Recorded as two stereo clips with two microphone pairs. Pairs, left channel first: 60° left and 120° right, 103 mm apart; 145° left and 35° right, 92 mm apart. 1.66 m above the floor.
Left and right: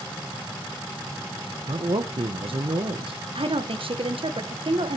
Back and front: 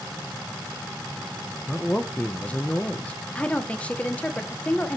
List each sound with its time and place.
1.7 s a man speaking: 140° right, 1.5 m
3.4 s a woman speaking: 140° right, 1.8 m